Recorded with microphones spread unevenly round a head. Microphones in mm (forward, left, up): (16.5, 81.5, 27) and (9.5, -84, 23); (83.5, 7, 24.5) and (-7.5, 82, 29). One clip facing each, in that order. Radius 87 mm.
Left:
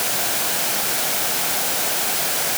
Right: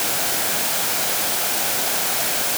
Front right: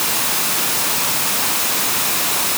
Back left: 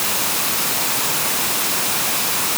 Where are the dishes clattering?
No dishes clattering in this recording.